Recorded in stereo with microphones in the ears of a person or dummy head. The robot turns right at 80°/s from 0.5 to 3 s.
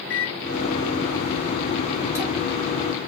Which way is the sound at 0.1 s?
60° left.